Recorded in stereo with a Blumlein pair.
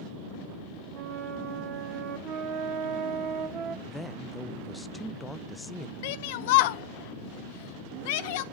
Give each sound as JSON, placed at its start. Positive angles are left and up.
{"t": 0.9, "sound": "a flute", "azimuth_deg": -35, "distance_m": 0.7}
{"t": 3.9, "sound": "a man speaking", "azimuth_deg": 10, "distance_m": 0.5}
{"t": 6.0, "sound": "a shout", "azimuth_deg": 50, "distance_m": 0.5}